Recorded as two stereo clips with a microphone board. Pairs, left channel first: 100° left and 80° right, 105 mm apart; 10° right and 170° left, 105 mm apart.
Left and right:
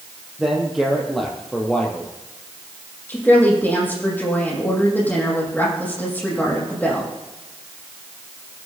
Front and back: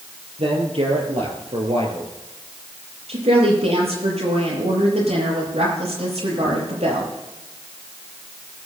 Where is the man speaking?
165° right, 5.5 m; by 2.1 s 175° left, 3.5 m.